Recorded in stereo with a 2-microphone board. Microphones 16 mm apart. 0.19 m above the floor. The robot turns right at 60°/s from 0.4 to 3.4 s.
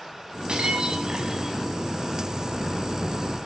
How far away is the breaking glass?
About 7.5 m.